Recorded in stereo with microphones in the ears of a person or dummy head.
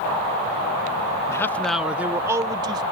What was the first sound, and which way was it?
A man speaking, 20° left (ahead or behind).